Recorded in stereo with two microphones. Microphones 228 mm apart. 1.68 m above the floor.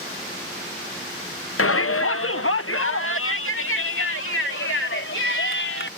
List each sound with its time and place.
1.6 s a shout: 70° left (ahead or behind); by 5.9 s 60° left (ahead or behind)